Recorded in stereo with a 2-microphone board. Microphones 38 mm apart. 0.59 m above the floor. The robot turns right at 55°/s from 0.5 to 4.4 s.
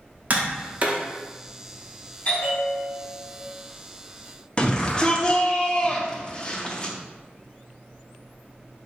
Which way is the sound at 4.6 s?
25° left (ahead or behind).